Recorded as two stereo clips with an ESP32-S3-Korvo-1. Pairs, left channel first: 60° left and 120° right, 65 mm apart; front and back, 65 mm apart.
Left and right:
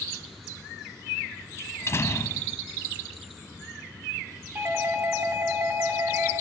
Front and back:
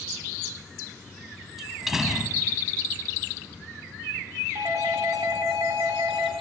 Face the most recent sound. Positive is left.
turn(degrees=-165)